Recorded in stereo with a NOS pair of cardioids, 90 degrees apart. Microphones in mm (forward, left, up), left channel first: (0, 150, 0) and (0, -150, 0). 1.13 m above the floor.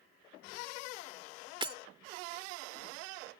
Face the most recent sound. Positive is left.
turn(degrees=-15)